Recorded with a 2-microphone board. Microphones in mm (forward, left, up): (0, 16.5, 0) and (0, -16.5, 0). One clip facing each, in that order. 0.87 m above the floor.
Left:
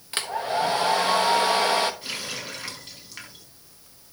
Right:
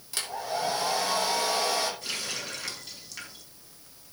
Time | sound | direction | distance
0.1 | a hair dryer | 45° left (ahead or behind) | 1.3 m
2.0 | a running tap | 20° left (ahead or behind) | 4 m